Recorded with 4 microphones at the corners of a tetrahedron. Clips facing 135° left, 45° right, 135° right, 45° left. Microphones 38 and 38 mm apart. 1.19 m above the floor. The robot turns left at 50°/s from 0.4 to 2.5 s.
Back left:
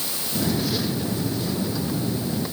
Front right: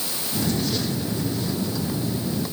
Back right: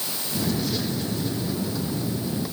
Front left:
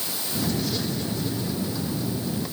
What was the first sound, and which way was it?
Only background noise.